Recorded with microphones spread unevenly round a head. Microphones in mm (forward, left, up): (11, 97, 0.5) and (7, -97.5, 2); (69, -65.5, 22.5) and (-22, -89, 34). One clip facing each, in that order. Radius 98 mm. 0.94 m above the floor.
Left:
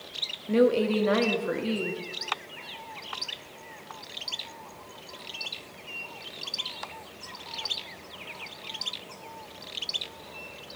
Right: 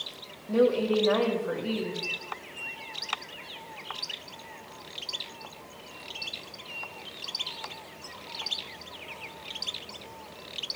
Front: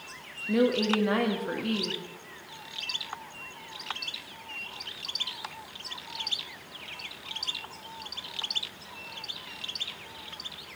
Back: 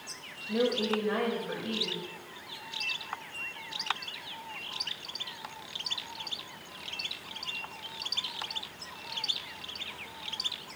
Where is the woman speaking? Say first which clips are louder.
Left 1 dB, front 4 dB; 30° left, 1.7 m.